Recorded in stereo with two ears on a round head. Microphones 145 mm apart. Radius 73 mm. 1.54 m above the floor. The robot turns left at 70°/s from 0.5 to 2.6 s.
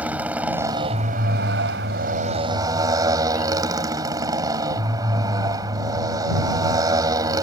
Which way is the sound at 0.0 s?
10° right.